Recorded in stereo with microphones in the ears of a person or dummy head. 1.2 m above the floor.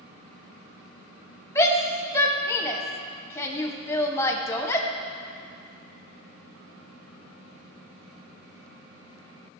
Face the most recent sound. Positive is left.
turn(degrees=10)  # may be behind; listen again after turning